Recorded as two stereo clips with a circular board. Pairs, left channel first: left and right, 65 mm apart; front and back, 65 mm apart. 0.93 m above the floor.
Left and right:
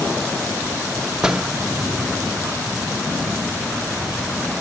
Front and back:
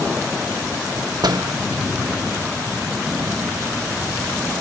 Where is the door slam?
170° right, 1.2 m.